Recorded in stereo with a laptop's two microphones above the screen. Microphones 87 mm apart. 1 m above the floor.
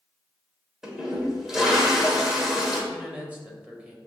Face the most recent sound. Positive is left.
turn(degrees=-15)  # may be behind; listen again after turning